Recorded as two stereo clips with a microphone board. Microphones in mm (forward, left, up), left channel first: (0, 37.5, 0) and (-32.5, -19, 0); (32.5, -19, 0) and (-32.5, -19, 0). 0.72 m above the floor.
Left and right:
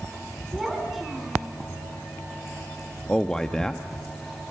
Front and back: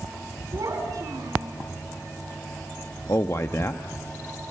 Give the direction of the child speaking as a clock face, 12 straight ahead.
7 o'clock.